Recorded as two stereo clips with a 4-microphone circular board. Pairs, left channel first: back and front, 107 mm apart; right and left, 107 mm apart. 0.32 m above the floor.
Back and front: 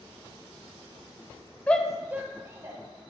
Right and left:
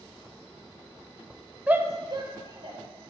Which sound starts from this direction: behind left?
A shout, at 1.7 s.